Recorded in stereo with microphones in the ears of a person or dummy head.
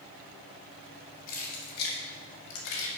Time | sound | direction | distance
1.3 | keys jangling | 45° left (ahead or behind) | 2 m